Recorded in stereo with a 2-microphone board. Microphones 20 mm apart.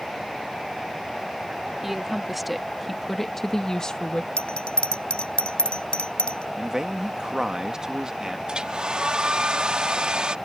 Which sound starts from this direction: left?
A bell, at 4.4 s.